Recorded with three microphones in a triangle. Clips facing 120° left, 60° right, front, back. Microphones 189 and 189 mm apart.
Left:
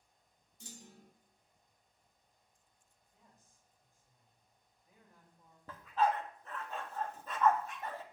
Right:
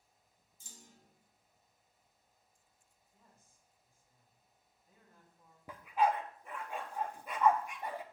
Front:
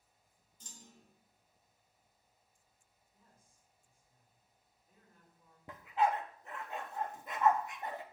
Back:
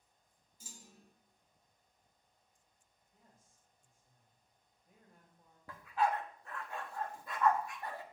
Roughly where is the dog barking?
Ahead.